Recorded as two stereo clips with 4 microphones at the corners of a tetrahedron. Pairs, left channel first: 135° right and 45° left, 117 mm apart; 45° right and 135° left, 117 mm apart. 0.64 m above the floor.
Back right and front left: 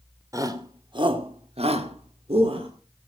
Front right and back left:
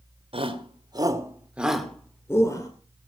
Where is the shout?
105° left, 2.5 m; by 2.7 s 10° left, 2.5 m.